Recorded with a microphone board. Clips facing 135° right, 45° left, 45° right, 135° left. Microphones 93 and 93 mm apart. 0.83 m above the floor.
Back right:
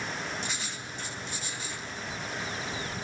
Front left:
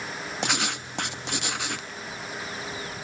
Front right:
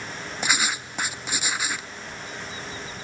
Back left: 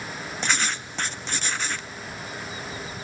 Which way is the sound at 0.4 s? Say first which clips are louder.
Front left 8 dB, front right 1 dB; 35° left.